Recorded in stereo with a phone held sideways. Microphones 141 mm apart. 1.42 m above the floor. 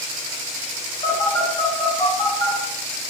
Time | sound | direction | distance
1.0 | a phone buzzing | 25° left (ahead or behind) | 1.4 m